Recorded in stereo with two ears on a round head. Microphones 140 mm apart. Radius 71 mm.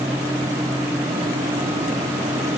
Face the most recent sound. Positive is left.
No sound to turn to.